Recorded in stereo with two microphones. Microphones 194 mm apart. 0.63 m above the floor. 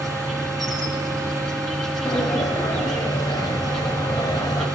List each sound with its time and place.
0.0 s an insect: centre (ahead or behind), 2 m
2.0 s a sliding door: 20° left (ahead or behind), 2.5 m